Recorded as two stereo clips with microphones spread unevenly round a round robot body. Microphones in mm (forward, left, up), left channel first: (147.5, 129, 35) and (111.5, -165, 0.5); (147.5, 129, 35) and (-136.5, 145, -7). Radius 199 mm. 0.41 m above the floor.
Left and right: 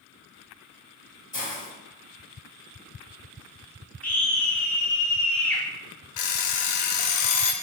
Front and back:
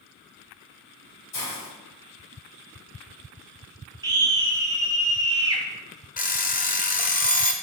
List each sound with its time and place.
1.3 s a hiss: 20° left, 2.5 m
4.0 s a scream: 175° left, 0.8 m
6.2 s an alarm clock: 65° left, 0.9 m